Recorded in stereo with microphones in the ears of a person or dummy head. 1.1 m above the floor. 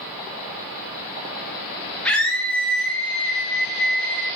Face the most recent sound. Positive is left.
turn(degrees=5)  # may be behind; listen again after turning